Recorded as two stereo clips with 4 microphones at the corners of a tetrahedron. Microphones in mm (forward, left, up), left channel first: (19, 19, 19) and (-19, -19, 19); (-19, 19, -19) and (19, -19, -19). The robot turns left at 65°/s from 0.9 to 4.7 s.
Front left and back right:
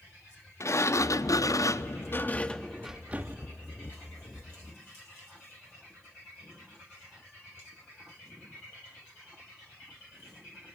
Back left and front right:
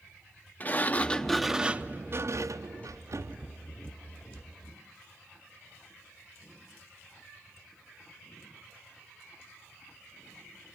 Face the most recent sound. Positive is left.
turn(degrees=-170)